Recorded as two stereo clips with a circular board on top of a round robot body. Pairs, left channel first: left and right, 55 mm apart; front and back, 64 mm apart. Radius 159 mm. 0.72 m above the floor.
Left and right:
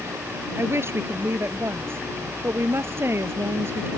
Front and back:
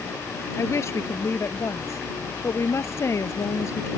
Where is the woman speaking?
45° right.